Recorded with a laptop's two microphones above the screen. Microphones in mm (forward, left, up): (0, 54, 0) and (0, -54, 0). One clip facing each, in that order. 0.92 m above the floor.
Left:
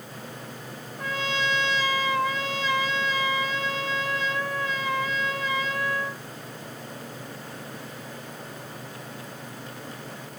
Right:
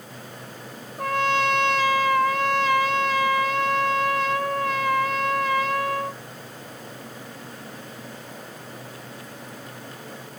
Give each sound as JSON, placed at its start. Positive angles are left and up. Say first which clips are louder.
{"t": 1.0, "sound": "a trumpet", "louder": "right 7 dB", "side_deg": -60, "distance_m": 0.7}